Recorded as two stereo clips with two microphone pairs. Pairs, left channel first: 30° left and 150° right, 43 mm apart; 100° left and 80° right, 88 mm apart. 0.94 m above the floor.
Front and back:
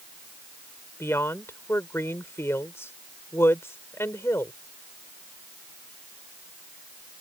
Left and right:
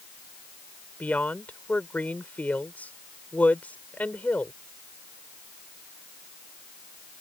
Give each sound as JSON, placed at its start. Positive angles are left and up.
{"t": 1.0, "sound": "a woman speaking", "azimuth_deg": 30}